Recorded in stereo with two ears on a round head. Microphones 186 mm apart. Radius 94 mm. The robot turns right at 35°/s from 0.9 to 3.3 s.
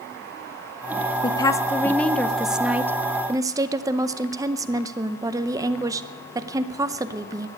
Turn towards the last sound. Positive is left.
turn(degrees=-145)